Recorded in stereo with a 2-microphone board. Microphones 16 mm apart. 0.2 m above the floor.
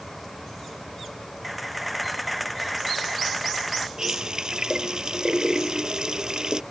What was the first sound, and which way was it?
A camera shutter, 5° right (ahead or behind).